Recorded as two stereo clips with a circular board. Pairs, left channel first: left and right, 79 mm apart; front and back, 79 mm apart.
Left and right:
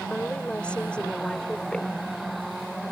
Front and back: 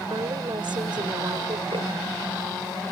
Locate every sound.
0.1 s a woman speaking: 165° left; by 2.0 s 170° left